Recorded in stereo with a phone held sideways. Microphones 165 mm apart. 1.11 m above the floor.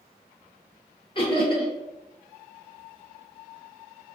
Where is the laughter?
30° left (ahead or behind), 0.7 m.